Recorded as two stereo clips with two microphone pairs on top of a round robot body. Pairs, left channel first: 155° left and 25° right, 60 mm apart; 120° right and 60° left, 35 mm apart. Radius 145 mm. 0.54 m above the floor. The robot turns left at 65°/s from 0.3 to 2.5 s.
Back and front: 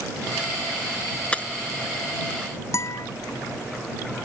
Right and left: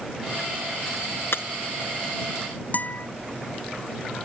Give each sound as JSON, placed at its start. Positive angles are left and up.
{"t": 1.3, "sound": "breaking glass", "azimuth_deg": -135}
{"t": 2.7, "sound": "a guitar", "azimuth_deg": -165}